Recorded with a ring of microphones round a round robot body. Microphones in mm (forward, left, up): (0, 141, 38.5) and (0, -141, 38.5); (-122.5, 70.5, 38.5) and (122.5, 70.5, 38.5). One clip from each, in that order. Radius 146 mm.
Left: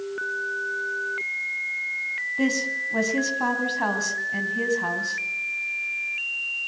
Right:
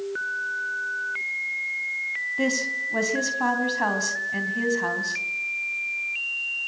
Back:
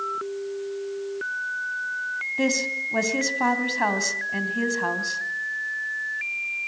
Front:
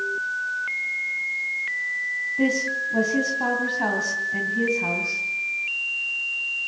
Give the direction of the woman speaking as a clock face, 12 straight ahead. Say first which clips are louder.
Even, even; 6 o'clock.